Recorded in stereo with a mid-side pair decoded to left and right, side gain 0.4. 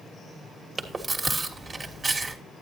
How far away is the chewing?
About 1.8 m.